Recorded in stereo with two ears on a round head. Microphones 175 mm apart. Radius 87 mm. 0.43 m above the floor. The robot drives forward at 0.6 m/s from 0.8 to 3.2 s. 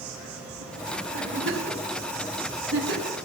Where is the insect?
85° right, 3.5 m; by 3.2 s 65° right (ahead or behind), 3.5 m.